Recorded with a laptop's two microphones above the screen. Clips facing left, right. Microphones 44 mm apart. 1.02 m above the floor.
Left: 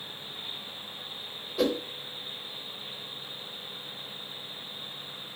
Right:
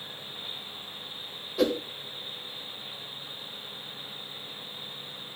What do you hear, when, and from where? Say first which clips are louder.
1.6 s a whoosh: right 1 dB; centre (ahead or behind), 0.8 m